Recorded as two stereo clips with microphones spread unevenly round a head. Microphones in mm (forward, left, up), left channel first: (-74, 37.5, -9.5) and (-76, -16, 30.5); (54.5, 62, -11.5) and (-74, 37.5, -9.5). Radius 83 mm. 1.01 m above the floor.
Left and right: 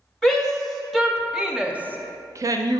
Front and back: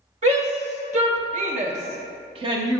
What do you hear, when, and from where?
0.2 s a shout: 160° left, 1.9 m; by 2.8 s 105° right, 0.6 m